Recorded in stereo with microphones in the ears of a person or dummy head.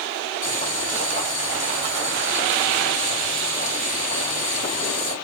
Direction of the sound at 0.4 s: 50° left (ahead or behind).